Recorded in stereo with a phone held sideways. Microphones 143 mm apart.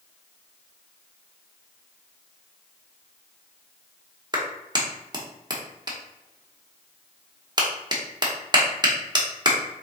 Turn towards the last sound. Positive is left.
turn(degrees=-30)  # may be behind; listen again after turning